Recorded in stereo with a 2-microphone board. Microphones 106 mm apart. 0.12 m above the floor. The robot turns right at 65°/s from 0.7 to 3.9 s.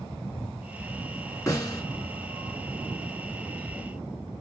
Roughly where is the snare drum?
Left.